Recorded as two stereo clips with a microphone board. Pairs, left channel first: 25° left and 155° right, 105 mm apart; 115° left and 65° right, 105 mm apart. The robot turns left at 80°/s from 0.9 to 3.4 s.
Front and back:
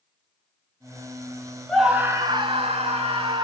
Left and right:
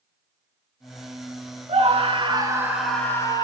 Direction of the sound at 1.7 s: 60° right.